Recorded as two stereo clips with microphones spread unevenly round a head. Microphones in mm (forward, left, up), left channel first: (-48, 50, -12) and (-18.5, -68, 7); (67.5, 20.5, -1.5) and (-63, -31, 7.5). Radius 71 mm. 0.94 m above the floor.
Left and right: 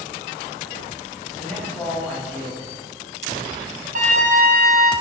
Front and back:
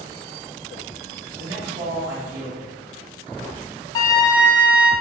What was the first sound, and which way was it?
A man speaking, straight behind.